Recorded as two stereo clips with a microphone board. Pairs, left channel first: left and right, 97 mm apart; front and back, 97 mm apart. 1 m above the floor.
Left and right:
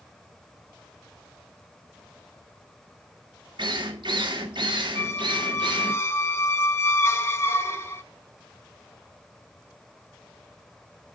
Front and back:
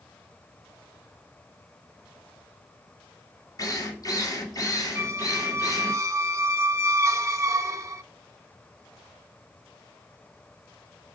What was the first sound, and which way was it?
A drill, 50° right.